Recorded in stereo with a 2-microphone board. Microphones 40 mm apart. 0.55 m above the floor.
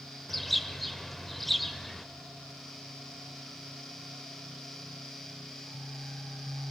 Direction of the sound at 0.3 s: 5° left (ahead or behind).